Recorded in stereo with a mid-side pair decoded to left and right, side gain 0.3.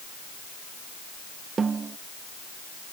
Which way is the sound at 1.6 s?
60° right.